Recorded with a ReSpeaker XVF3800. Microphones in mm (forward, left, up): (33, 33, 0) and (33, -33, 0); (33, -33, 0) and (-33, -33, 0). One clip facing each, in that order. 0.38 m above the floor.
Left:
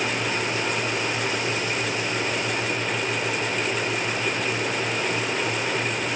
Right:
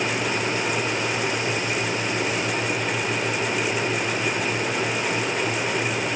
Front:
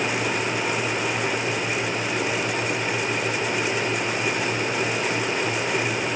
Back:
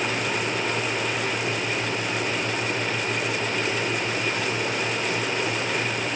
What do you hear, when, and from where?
Only background noise.